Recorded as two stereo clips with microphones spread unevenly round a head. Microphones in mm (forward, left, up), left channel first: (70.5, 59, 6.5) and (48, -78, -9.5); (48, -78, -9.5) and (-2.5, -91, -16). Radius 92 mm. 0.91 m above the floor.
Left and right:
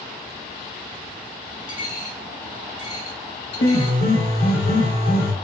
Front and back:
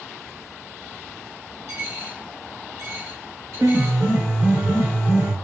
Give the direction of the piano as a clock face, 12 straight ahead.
8 o'clock.